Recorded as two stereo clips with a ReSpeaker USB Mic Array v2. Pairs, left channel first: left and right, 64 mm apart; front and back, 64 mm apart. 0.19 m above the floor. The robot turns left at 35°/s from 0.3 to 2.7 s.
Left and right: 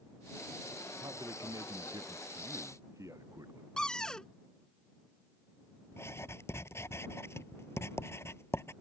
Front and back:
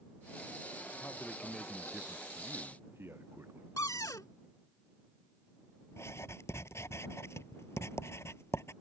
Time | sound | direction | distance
1.0 | a man speaking | 65° right | ?
3.8 | a cupboard door | 15° left | ?
5.9 | writing | 45° left | ?